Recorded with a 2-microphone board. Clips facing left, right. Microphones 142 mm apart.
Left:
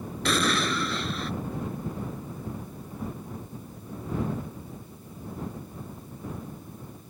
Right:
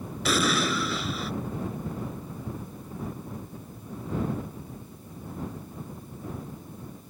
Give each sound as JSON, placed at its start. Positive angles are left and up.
{"t": 0.2, "sound": "an explosion", "side_deg": -5}